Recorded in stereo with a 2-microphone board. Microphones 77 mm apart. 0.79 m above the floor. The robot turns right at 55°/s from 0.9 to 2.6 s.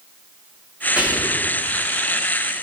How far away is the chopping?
I don't hear chopping.